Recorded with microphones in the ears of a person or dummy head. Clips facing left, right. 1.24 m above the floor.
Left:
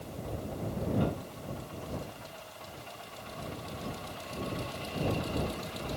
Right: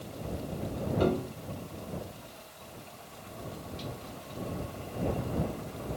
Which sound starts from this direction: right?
A piano, at 1.0 s.